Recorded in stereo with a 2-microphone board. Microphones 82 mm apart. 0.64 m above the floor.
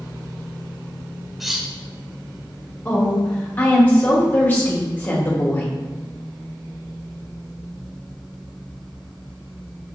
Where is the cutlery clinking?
Centre (ahead or behind), 0.7 m.